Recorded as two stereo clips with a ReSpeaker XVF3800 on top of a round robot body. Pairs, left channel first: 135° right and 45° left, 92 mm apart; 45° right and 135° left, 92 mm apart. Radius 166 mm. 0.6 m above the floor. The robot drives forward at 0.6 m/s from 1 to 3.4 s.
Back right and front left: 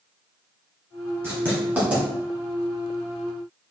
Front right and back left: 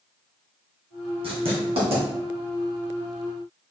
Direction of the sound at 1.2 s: 110° left.